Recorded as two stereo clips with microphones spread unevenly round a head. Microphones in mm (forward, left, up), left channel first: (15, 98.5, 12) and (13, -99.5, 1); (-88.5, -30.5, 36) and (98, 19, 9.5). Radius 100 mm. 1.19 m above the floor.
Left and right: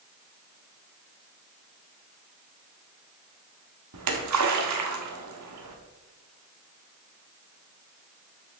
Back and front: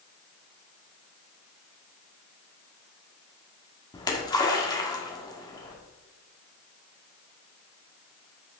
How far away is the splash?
About 1.7 m.